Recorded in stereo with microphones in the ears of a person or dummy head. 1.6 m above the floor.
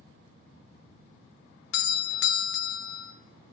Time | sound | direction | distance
1.7 | a doorbell | 65° left (ahead or behind) | 0.8 m